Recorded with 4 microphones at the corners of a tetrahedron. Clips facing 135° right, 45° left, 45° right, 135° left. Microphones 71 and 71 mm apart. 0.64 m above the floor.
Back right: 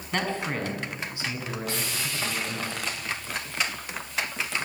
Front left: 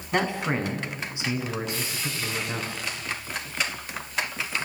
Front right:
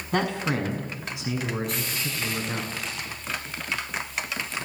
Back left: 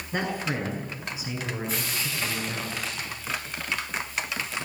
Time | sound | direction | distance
0.1 | a man speaking | 30° right | 7 m
1.7 | frying | 140° right | 9 m